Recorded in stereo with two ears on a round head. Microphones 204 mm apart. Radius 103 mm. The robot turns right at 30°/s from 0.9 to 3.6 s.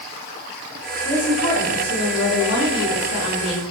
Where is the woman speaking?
5° left, 4.5 m; by 3.6 s 80° left, 4.5 m.